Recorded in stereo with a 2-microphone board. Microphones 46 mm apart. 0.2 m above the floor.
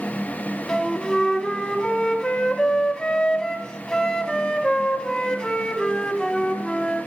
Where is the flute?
15° left (ahead or behind), 0.8 m.